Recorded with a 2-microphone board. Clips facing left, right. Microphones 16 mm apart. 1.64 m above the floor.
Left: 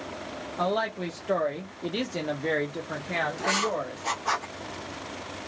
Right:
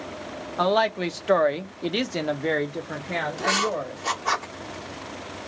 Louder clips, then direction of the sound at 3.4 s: Right 6 dB; 15° right (ahead or behind).